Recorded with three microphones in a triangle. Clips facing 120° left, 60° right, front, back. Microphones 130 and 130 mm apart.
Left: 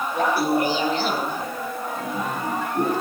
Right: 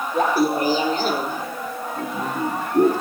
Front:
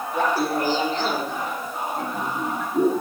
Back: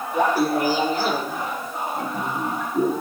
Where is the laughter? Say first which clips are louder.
Right 2 dB, back 3 dB; 105° right, 6 m; by 2.9 s 80° right, 5 m.